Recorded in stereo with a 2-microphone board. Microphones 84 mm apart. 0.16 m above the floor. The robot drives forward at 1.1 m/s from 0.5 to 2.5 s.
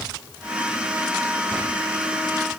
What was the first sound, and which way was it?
Only background noise.